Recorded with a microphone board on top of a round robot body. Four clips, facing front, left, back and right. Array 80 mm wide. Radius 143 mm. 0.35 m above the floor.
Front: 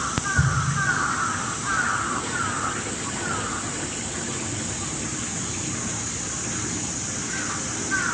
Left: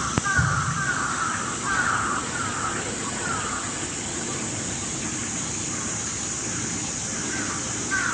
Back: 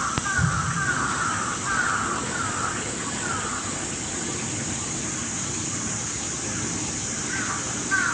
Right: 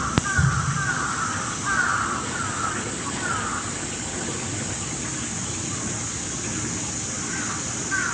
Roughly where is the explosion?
Ahead.